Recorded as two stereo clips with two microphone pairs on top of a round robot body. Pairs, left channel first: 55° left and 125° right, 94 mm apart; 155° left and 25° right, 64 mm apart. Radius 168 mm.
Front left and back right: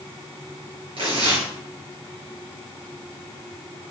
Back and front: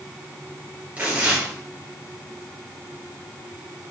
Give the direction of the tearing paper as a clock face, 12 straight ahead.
3 o'clock.